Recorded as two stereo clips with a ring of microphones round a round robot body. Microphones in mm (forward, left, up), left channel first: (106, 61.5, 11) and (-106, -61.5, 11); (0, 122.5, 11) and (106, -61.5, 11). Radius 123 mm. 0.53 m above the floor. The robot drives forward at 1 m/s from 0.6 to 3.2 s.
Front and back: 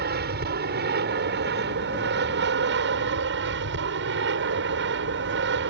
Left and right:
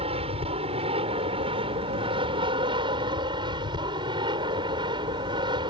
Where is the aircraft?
120° right; by 5.7 s 125° right.